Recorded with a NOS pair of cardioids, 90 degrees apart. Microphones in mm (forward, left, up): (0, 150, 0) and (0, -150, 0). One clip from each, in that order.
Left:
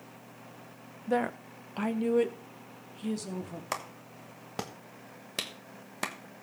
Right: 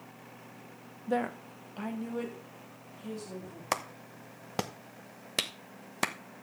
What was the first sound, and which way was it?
A woman speaking, 5° left.